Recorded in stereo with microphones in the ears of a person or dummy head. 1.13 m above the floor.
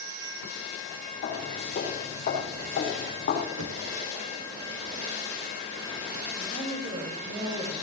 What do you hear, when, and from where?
1.2 s footsteps: 40° left (ahead or behind), 5.5 m; by 3.5 s 50° left (ahead or behind), 5.5 m
3.6 s knocking: 80° right, 1.3 m
6.4 s a woman speaking: 55° right (ahead or behind), 4 m